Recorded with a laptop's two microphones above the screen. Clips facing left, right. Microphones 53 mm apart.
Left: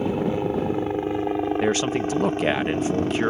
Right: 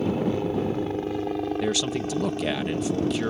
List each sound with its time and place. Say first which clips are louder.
0.0 s a helicopter: left 1 dB; 15° left (ahead or behind); by 3.3 s 40° left (ahead or behind)
1.6 s a man speaking: left 4 dB; 40° left (ahead or behind)